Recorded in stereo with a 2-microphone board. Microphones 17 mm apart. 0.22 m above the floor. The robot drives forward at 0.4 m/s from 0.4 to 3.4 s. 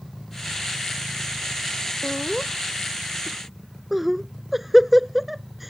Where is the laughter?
5° right (ahead or behind); by 5.7 s centre (ahead or behind).